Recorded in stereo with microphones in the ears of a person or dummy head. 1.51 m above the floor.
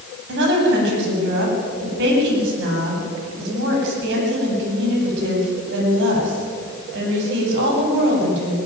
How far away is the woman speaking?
About 9.5 m.